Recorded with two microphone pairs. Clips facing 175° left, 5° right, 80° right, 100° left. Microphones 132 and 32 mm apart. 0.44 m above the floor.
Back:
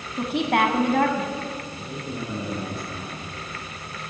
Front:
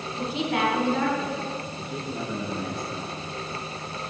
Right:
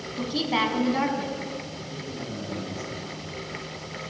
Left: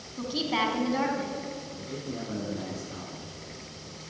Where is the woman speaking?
160° right, 3.5 m.